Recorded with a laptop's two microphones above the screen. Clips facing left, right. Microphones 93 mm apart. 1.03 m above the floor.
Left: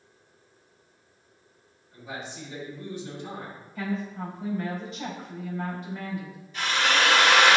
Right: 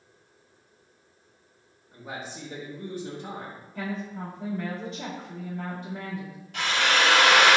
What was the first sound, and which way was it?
A man speaking, 45° right (ahead or behind).